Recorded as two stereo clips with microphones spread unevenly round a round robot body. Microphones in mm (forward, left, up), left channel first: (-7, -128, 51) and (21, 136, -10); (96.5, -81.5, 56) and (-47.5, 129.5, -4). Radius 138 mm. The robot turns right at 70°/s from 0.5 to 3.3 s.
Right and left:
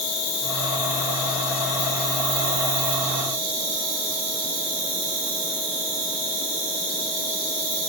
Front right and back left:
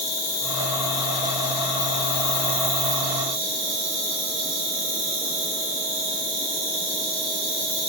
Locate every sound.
0.0 s an insect: 110° right, 8.5 m; by 7.9 s 85° left, 8.5 m